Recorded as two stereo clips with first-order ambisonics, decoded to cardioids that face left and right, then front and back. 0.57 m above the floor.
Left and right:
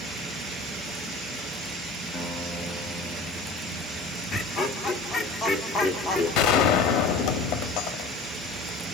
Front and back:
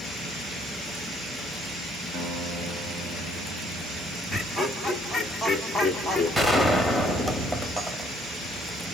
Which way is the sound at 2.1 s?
140° left.